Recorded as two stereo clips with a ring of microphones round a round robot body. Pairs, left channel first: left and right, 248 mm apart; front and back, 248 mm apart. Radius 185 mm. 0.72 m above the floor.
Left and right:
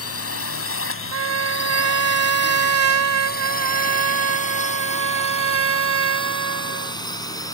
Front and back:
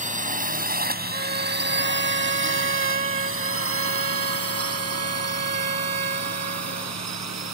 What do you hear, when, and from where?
0.0 s a drone: 120° left; by 7.5 s 165° left
1.1 s a trumpet: 110° right